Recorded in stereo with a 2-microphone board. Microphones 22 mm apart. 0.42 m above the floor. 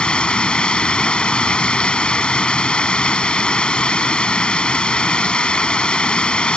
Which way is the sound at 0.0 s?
55° left (ahead or behind).